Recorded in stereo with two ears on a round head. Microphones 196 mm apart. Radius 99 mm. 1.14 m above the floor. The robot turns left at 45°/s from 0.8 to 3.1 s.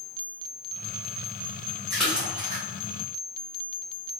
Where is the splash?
5° left (ahead or behind), 1.8 m; by 2.6 s 25° right (ahead or behind), 1.8 m.